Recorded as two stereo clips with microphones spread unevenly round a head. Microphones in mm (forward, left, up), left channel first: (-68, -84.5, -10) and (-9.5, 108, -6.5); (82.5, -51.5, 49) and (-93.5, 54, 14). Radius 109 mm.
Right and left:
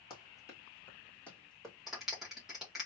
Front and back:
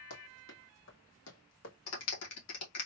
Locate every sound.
0.1 s running footsteps: 35° right, 2 m; by 1.8 s 20° right, 2.5 m
1.9 s a clap: 15° right, 1.6 m